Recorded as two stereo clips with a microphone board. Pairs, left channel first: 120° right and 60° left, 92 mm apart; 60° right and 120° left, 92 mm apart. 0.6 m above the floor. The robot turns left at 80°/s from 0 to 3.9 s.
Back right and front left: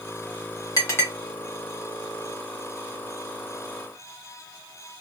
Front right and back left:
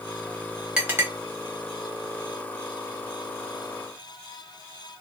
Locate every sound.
0.8 s a clink: 160° right, 0.9 m; by 1.1 s 170° left, 0.9 m